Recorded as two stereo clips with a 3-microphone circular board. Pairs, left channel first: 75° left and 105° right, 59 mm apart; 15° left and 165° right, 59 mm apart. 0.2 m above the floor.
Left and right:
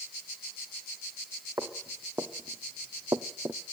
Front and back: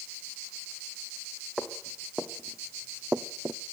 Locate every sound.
1.6 s footsteps: 70° right, 3 m; by 3.6 s 150° right, 0.8 m